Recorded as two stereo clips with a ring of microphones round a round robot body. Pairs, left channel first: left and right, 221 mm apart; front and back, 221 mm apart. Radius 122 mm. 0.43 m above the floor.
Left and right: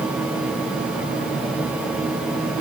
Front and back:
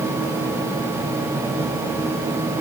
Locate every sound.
Only background noise.